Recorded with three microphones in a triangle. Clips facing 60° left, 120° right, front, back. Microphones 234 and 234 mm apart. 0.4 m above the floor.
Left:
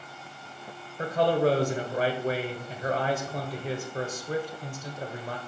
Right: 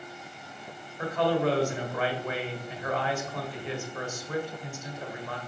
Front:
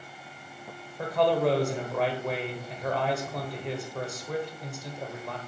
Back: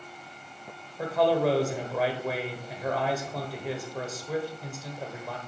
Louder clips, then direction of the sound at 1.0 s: Left 2 dB, even; 95° left.